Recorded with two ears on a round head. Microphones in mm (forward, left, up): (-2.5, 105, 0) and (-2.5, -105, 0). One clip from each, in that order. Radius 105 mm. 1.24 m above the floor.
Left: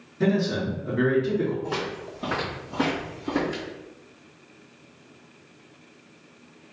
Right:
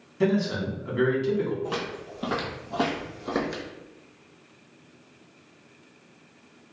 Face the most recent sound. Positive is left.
turn(degrees=-50)  # may be behind; listen again after turning